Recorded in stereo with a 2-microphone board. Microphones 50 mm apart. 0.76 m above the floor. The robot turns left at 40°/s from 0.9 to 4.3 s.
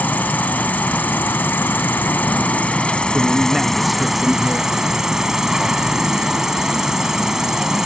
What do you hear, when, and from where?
0.0 s an insect: 120° left; by 7.9 s 15° right
3.1 s a man speaking: 140° right; by 4.8 s 175° left